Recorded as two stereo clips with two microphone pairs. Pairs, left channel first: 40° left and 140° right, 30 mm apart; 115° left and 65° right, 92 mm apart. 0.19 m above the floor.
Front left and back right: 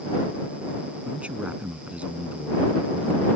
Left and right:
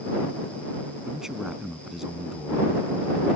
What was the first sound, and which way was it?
A man speaking, 145° right.